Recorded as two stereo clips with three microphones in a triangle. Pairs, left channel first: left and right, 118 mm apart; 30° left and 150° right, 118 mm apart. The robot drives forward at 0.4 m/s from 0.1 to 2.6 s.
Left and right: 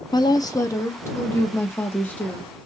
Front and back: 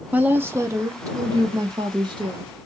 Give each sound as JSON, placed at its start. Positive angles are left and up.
{"t": 0.1, "sound": "a woman speaking", "azimuth_deg": 135, "distance_m": 0.6}